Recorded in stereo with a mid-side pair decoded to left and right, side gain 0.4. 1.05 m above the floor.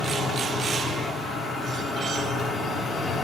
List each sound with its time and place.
0.0 s a machine running: 60° left, 3.5 m